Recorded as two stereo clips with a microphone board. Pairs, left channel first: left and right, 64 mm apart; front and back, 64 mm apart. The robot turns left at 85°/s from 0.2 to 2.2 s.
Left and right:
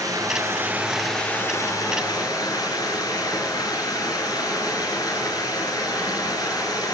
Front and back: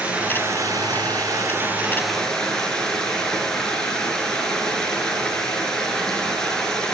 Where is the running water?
110° right, 7.5 m; by 7.0 s 80° left, 7.5 m.